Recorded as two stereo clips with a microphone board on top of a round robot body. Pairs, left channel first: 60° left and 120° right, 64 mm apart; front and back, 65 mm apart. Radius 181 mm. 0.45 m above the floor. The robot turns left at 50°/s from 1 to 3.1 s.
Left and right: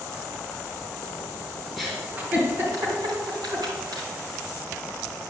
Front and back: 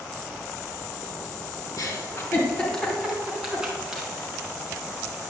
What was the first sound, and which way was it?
A giggle, 30° right.